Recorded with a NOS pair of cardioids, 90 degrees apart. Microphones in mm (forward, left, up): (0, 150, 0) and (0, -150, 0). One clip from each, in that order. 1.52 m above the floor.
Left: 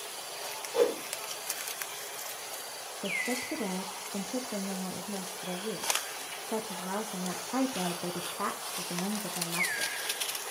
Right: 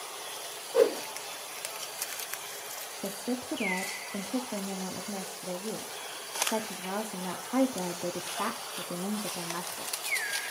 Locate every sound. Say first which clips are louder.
0.7 s a whoosh: right 3 dB; 25° right, 1.9 m
3.0 s a woman speaking: left 4 dB; 5° right, 0.8 m